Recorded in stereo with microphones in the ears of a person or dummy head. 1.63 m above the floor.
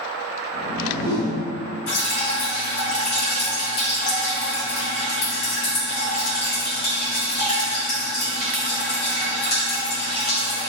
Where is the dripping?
60° left (ahead or behind), 1.4 m.